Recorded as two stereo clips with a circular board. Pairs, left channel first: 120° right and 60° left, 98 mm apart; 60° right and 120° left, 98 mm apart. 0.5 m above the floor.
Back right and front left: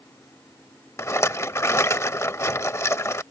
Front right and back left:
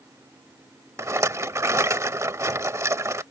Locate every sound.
1.0 s a rattle: straight behind